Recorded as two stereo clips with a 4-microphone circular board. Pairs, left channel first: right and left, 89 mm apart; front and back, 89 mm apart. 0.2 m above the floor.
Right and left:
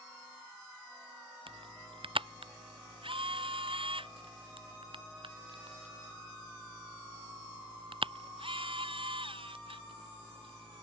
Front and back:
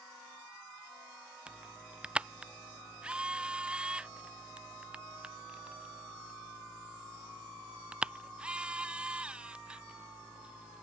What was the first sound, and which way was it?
A camera shutter, 100° left.